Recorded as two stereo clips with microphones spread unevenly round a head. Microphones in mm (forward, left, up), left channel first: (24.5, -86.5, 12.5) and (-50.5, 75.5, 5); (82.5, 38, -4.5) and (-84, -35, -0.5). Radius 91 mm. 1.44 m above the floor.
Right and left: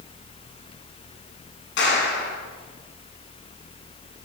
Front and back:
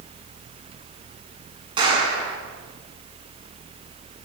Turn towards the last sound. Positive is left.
turn(degrees=-90)